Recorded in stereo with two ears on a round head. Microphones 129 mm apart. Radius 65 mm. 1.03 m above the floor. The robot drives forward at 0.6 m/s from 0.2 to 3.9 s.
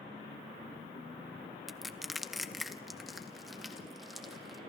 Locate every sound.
1.7 s crushing: centre (ahead or behind), 0.5 m